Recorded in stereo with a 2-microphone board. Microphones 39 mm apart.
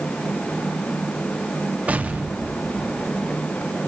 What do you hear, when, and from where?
1.9 s an explosion: 35° right (ahead or behind), 1.0 m